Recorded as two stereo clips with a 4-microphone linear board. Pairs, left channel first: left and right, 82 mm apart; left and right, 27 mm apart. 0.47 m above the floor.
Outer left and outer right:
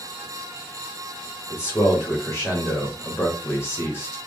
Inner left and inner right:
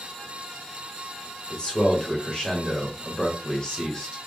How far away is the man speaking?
About 1.2 m.